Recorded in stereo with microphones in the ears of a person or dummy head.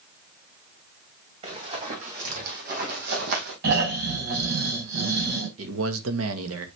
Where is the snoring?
65° right (ahead or behind), 4 m.